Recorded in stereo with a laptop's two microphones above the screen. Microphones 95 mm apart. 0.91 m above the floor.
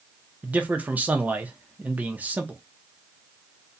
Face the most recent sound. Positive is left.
turn(degrees=-15)  # may be behind; listen again after turning